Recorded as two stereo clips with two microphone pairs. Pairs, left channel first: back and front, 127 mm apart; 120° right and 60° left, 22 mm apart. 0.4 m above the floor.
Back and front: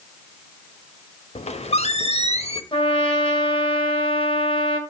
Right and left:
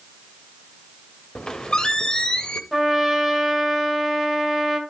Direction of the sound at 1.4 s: 170° right.